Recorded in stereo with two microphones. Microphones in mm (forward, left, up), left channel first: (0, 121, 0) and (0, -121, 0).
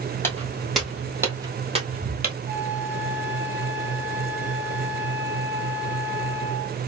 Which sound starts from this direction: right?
A flute, at 2.5 s.